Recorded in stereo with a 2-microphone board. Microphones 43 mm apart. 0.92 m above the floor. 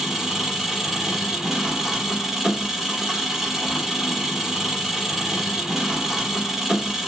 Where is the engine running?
10° right (ahead or behind), 1.0 m.